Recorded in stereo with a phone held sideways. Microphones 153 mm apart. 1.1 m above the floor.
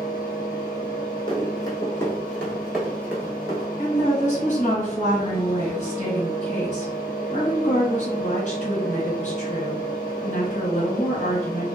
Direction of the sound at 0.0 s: 65° left (ahead or behind).